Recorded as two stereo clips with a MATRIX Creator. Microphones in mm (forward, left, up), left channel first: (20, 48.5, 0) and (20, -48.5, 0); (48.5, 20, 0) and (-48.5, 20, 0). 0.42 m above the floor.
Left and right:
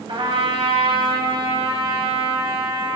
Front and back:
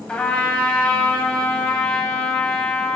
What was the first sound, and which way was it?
A trumpet, 75° right.